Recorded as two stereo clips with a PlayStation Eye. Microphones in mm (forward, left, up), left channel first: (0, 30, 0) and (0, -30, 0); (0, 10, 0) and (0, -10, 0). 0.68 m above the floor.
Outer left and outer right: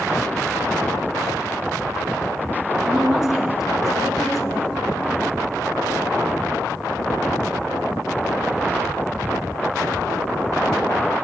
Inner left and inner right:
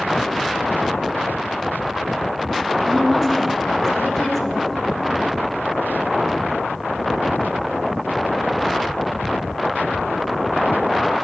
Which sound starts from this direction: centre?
A woman speaking, at 2.8 s.